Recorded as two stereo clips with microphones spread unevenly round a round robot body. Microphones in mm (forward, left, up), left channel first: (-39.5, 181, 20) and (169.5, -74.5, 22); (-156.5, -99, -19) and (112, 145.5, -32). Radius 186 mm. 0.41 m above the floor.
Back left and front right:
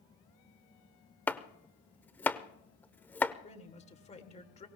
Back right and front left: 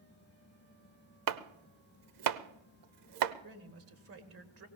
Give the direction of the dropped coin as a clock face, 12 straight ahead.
I don't hear a dropped coin.